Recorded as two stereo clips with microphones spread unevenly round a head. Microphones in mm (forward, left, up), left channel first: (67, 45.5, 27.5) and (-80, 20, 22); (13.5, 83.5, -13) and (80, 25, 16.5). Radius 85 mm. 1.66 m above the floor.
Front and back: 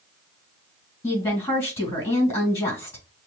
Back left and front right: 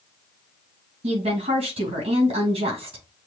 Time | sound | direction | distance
1.0 | a woman speaking | 65° right | 2.5 m